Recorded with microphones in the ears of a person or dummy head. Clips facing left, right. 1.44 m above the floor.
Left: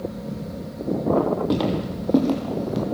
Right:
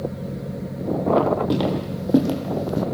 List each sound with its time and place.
1.5 s footsteps: centre (ahead or behind), 3 m; by 2.8 s 5° right (ahead or behind), 4.5 m